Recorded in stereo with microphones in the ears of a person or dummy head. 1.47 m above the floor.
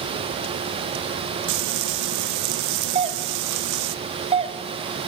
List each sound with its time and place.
1.5 s frying: 60° right (ahead or behind), 1.5 m
3.0 s a doorbell: 25° right (ahead or behind), 1.0 m